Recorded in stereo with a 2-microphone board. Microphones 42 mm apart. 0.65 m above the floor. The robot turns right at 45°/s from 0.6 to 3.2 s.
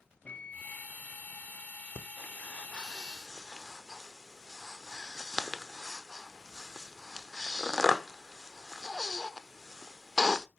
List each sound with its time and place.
0.2 s a microwave: 30° left (ahead or behind), 0.9 m
1.9 s breathing: 55° left (ahead or behind), 0.9 m; by 10.5 s centre (ahead or behind), 0.9 m